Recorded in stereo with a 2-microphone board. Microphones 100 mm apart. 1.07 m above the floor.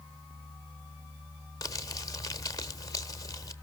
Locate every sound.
1.6 s crumpling: 35° left (ahead or behind), 1.1 m